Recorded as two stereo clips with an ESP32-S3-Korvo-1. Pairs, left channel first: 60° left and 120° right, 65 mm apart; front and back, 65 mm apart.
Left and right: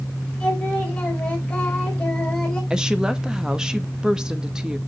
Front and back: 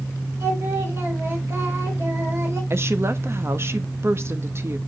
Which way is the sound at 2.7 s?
165° left.